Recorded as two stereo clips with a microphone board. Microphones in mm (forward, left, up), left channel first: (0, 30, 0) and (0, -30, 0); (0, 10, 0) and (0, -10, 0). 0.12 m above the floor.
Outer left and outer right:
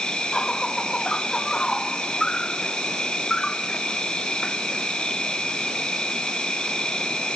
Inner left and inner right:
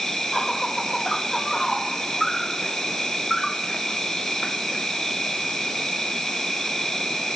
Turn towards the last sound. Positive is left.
turn(degrees=15)  # may be behind; listen again after turning